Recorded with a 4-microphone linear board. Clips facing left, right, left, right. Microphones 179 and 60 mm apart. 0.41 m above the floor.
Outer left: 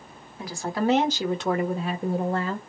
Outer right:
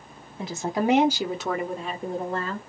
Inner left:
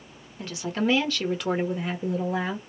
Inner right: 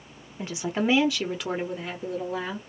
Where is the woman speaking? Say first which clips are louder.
Outer right 1 dB, even; 25° right (ahead or behind), 1.0 m; by 2.6 s 15° left (ahead or behind), 1.3 m.